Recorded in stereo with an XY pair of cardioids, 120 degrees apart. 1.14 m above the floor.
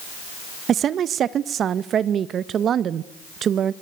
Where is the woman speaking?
50° right, 0.8 m.